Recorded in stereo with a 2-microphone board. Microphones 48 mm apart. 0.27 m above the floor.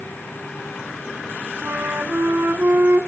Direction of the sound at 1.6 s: 55° right (ahead or behind).